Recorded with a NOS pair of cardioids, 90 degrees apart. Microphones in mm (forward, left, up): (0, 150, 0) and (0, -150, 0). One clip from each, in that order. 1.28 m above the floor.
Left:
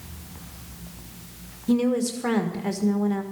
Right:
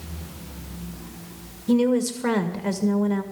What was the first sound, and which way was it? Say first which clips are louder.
A woman speaking: right 2 dB; 10° right.